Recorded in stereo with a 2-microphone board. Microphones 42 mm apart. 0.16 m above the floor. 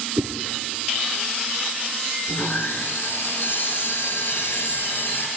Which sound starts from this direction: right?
A whoosh, at 0.2 s.